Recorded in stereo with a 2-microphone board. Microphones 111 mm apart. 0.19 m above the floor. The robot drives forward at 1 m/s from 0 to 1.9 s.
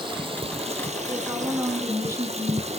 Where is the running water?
45° right (ahead or behind), 1.9 m; by 2.8 s 65° right (ahead or behind), 1.5 m.